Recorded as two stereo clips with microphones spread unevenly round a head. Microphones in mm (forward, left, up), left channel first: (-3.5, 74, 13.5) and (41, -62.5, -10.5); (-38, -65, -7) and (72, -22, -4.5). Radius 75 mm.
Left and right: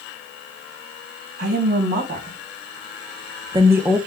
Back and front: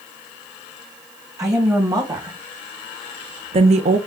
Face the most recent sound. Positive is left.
turn(degrees=20)